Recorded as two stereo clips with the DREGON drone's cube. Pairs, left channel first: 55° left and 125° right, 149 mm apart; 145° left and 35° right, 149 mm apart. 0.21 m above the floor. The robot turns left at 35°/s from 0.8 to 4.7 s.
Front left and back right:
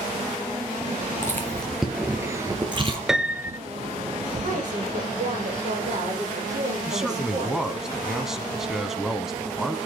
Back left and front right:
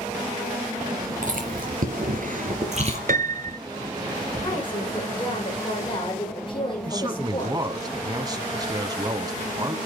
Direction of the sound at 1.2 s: 15° right.